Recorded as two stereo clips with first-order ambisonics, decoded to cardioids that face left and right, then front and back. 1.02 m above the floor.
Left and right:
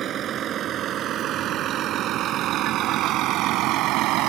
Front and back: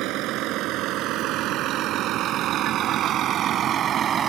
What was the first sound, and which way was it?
A vehicle, 145° right.